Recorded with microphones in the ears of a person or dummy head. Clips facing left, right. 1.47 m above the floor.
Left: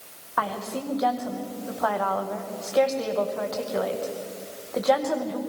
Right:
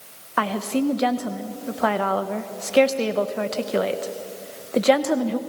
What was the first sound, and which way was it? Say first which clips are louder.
A woman speaking: right 7 dB; 40° right (ahead or behind).